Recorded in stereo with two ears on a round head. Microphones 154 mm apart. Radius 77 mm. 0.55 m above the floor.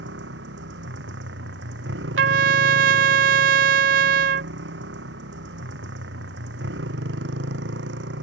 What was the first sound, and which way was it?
A motorcycle, 70° right (ahead or behind).